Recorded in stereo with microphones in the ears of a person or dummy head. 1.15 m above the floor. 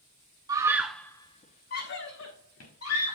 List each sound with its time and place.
0.5 s a scream: 20° right (ahead or behind), 1.2 m; by 3.1 s 80° left, 2.5 m